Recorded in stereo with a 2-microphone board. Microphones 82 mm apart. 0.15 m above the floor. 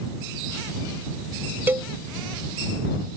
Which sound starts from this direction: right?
A cowbell, at 1.7 s.